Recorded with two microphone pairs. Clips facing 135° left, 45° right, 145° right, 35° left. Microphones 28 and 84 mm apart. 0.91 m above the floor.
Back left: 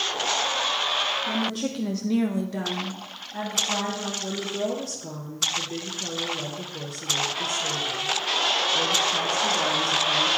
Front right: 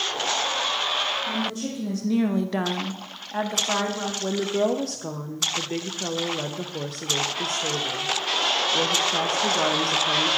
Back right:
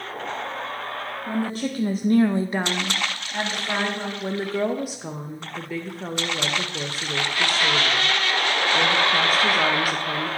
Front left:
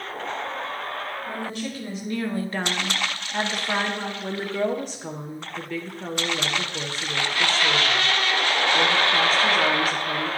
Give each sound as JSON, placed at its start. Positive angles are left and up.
{"t": 1.3, "sound": "a woman speaking", "azimuth_deg": 160, "distance_m": 1.1}
{"t": 4.2, "sound": "a woman speaking", "azimuth_deg": -70, "distance_m": 0.6}